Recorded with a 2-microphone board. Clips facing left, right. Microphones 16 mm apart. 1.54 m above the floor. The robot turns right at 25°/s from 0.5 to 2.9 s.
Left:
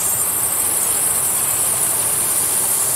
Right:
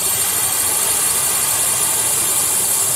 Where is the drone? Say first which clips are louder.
Right 3 dB; 85° right; by 3.0 s 25° right.